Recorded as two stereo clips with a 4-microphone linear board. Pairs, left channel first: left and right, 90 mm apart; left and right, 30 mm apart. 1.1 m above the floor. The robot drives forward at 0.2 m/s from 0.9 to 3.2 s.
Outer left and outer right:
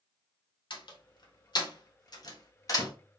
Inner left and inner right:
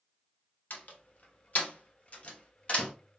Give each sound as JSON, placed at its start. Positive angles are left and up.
{"t": 0.7, "sound": "a door slam", "side_deg": 60, "distance_m": 0.8}